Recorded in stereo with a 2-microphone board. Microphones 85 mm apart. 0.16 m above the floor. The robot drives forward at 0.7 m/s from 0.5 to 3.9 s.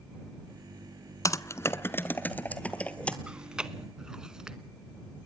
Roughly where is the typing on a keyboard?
Left.